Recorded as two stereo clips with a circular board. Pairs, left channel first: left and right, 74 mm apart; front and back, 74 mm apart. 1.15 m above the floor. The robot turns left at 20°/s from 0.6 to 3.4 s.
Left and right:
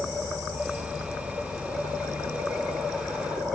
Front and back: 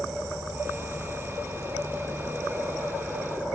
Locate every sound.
0.0 s an insect: 175° left, 2.5 m; by 3.5 s 120° left, 2.5 m